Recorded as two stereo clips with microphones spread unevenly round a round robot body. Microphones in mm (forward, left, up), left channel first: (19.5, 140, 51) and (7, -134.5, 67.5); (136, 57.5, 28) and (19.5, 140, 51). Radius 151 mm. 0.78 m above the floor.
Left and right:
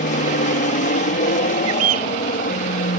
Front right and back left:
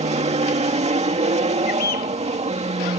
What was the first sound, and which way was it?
An aircraft, 130° left.